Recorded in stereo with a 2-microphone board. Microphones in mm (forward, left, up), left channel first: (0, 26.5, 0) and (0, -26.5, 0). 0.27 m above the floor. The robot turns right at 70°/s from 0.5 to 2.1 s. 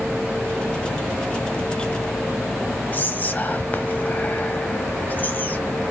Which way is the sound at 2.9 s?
35° left (ahead or behind).